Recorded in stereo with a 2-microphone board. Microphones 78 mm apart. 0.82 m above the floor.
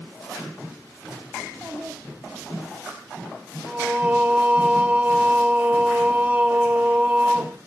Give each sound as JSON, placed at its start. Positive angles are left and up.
{"t": 1.4, "sound": "a child speaking", "side_deg": -5, "distance_m": 4.5}
{"t": 3.7, "sound": "singing", "side_deg": -20, "distance_m": 0.5}